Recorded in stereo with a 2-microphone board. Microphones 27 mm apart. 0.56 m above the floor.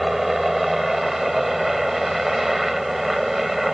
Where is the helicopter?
10° right (ahead or behind).